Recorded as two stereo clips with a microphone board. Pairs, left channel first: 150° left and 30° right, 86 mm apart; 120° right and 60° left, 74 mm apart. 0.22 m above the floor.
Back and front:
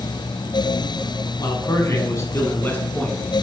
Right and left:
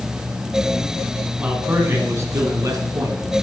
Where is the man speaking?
125° left, 2.0 m; by 3.2 s 80° left, 2.5 m.